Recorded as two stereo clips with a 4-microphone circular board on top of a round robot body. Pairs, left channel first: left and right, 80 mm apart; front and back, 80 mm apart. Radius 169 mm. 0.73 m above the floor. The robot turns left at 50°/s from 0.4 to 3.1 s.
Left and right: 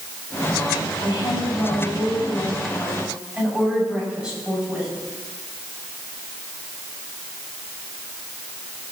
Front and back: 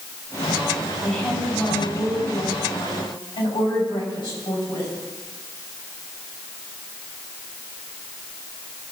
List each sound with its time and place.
1.0 s a woman speaking: 90° left, 7.5 m; by 4.9 s 15° right, 7.5 m